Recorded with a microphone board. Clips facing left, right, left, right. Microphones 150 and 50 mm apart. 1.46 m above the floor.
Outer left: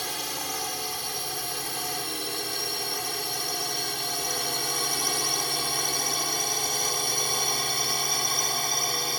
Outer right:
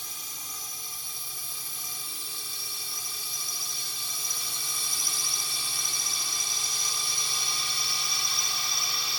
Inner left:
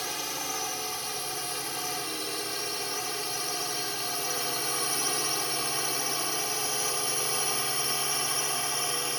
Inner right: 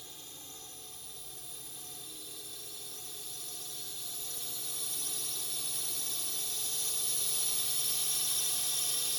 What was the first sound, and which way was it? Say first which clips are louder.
A drone: outer left 15 dB, inner left 18 dB; 75° left (ahead or behind).